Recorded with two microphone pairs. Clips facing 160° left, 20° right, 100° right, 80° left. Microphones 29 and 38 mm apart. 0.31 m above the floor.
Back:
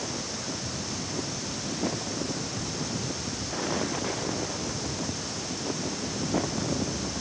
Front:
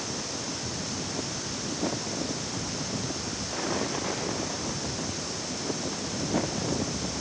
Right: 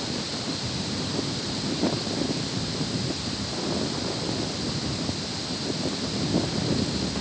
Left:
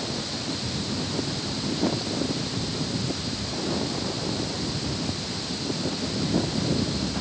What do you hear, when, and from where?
Only background noise.